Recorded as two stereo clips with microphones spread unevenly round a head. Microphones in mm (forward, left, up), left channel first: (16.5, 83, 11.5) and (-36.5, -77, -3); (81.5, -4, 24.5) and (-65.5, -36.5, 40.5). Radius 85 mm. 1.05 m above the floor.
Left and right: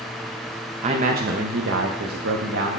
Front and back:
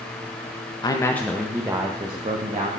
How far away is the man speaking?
About 0.6 m.